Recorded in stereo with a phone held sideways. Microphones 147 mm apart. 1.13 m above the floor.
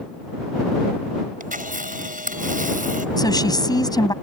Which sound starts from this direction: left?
A woman speaking, at 3.2 s.